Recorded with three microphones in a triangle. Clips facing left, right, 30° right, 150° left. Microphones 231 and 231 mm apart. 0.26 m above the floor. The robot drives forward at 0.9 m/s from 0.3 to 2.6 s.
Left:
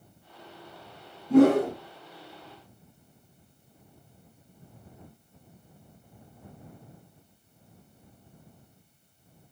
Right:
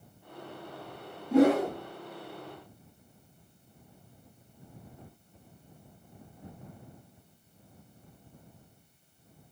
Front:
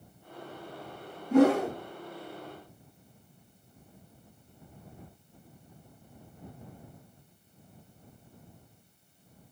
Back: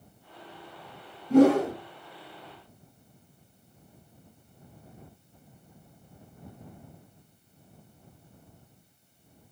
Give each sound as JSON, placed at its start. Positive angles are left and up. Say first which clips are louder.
{"t": 1.3, "sound": "a whoosh", "louder": "left 4 dB, back 3 dB", "azimuth_deg": 95, "distance_m": 6.0}